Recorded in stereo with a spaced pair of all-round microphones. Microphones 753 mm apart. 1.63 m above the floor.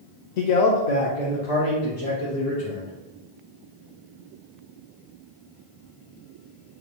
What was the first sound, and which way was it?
A man speaking, 70° left (ahead or behind).